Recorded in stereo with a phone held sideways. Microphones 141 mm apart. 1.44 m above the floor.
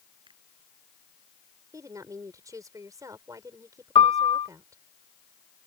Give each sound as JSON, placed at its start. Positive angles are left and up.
{"t": 0.3, "sound": "a finger snap", "side_deg": -35}
{"t": 1.7, "sound": "a woman speaking", "side_deg": -25}
{"t": 4.0, "sound": "a piano", "side_deg": 40}